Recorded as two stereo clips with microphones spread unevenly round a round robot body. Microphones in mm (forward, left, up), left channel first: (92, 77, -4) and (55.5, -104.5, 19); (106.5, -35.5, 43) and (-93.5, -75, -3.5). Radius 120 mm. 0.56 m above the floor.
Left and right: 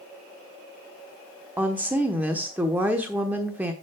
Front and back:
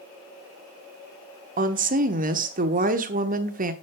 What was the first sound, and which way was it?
A woman speaking, 175° left.